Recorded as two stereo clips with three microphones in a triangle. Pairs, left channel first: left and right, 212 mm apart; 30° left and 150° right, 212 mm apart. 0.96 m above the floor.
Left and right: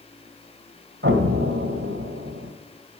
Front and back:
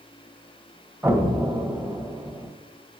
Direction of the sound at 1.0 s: 70° right.